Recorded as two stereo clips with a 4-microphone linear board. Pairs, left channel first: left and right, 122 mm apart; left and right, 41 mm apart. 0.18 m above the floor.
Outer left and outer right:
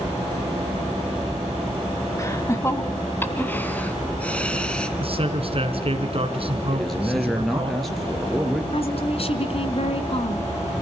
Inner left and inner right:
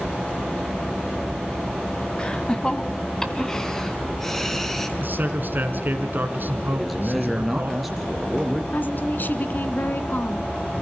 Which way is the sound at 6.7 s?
Centre (ahead or behind).